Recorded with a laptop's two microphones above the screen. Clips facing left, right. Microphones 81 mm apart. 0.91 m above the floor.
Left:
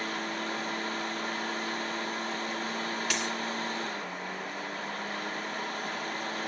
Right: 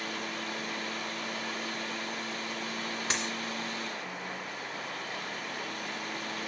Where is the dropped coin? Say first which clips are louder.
Right 1 dB; 30° right (ahead or behind), 2 m.